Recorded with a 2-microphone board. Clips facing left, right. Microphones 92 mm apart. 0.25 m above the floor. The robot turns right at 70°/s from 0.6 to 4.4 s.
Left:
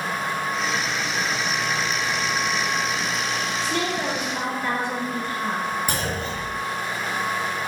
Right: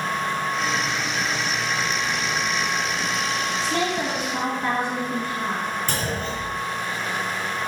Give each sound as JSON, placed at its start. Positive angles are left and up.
{"t": 3.6, "sound": "a woman speaking", "azimuth_deg": -85, "distance_m": 1.9}
{"t": 5.9, "sound": "a clunk", "side_deg": 15, "distance_m": 0.9}